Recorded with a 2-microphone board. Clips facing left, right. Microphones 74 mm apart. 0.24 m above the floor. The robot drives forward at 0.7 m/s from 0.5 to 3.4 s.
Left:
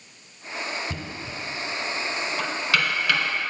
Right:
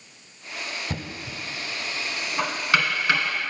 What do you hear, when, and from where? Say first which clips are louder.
0.9 s knocking: even; 45° right (ahead or behind), 0.9 m; by 3.2 s 25° right (ahead or behind), 1.5 m